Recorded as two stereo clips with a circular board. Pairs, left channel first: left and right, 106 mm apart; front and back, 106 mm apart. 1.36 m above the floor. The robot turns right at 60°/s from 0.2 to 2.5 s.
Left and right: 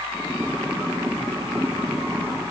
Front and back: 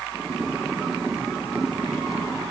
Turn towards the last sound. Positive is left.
No sound to turn to.